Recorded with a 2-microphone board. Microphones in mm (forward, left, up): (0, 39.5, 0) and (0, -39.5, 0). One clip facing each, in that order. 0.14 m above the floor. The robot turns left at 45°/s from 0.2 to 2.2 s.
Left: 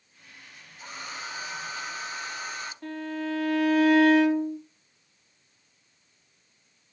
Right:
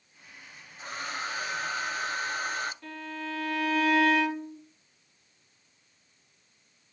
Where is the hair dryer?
55° right, 0.7 m; by 2.7 s 120° right, 0.7 m.